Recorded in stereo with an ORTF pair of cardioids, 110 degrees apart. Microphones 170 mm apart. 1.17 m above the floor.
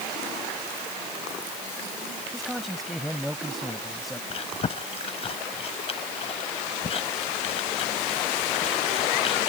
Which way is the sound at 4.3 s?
35° left.